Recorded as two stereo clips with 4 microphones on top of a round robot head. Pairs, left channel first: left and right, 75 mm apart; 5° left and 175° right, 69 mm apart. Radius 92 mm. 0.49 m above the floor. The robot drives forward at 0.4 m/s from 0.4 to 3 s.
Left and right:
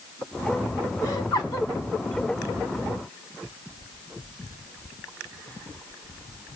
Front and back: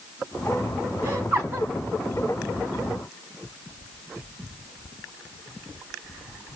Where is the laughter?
135° left, 4 m; by 1.7 s 140° left, 4.5 m.